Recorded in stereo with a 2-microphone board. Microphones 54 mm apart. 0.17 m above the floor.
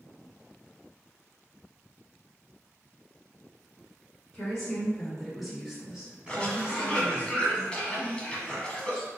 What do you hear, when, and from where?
4.3 s a woman speaking: 15° left (ahead or behind), 1.6 m; by 7.3 s 30° right (ahead or behind), 1.3 m
6.3 s a cough: 20° left (ahead or behind), 1.0 m